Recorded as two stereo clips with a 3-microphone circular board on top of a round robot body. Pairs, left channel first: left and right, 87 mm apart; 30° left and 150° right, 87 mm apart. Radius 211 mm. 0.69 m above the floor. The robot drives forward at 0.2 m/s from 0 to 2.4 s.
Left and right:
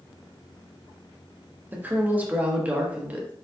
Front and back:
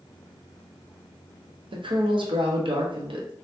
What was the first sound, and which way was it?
A woman speaking, 160° right.